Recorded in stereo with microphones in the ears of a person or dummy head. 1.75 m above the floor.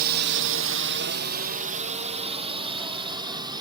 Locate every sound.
0.0 s a drone: 50° right (ahead or behind); by 3.6 s 20° right (ahead or behind)